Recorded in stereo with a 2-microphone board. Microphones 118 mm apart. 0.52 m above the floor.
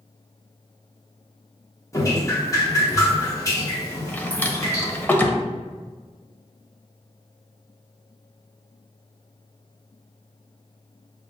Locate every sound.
1.9 s dripping: 30° left (ahead or behind), 1.0 m
4.1 s a drawer: 15° left (ahead or behind), 0.5 m